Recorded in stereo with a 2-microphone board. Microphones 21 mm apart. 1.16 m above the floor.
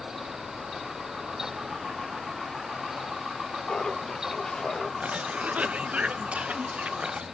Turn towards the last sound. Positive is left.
turn(degrees=-75)  # may be behind; listen again after turning